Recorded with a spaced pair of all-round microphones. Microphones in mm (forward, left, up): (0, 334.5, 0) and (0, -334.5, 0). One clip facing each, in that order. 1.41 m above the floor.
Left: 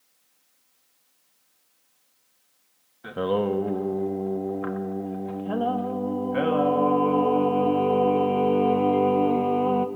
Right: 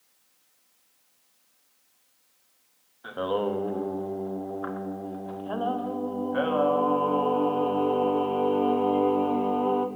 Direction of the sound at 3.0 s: 55° left (ahead or behind).